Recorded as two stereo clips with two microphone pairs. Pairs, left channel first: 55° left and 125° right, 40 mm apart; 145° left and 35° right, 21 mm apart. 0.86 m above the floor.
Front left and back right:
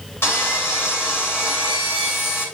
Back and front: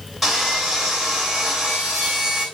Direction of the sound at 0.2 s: 55° left.